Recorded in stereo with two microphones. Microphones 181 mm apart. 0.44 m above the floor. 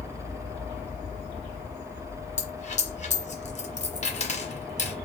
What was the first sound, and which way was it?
A dropped coin, 40° left (ahead or behind).